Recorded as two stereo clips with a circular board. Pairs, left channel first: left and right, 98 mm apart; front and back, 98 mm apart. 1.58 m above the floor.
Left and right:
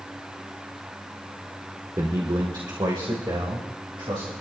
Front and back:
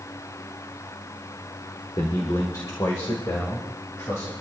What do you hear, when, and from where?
2.0 s a man speaking: 45° right, 1.4 m; by 4.3 s 55° right, 3 m